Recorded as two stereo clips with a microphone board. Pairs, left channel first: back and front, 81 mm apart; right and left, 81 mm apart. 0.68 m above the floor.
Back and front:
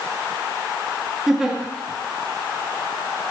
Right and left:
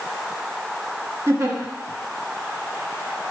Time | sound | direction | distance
1.3 | a giggle | 80° left | 1.3 m